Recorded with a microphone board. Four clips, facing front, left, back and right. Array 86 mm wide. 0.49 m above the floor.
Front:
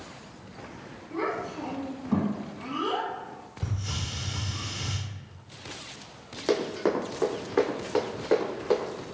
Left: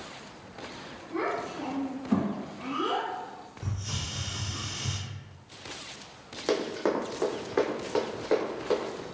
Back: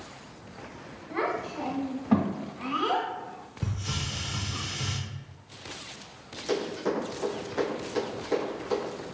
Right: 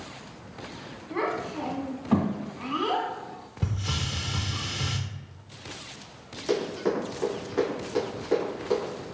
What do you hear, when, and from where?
1.1 s a child speaking: 155° right, 1.3 m
3.6 s a hiss: 105° right, 0.6 m
6.5 s running footsteps: 40° left, 1.1 m; by 8.9 s 35° left, 3 m